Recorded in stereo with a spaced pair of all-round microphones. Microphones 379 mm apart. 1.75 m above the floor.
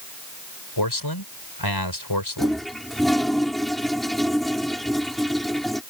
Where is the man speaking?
80° left.